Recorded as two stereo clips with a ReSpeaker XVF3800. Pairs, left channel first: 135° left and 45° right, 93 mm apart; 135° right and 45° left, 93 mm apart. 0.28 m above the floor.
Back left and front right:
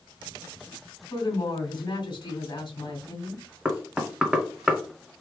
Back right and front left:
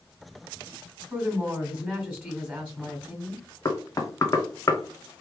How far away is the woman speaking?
About 1.9 m.